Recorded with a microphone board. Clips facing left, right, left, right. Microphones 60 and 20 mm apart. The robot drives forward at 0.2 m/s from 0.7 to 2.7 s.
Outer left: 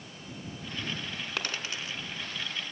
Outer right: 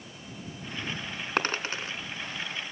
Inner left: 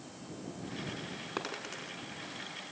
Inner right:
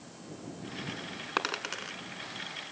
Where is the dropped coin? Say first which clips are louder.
Outer right 8 dB, inner right 8 dB; 40° right (ahead or behind), 1.3 m.